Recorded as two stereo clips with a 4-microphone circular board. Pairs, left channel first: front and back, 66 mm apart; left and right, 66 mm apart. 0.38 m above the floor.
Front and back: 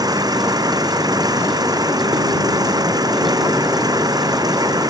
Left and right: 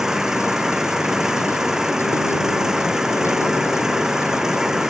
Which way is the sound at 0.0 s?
175° right.